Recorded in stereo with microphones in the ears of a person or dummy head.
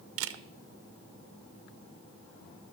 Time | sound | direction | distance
0.2 | a camera shutter | 75° right (ahead or behind) | 0.6 m